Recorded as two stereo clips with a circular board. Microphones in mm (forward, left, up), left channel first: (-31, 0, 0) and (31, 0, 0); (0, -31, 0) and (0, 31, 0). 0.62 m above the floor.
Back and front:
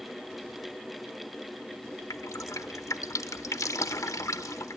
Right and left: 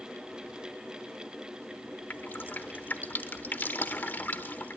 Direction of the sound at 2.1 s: 150° right.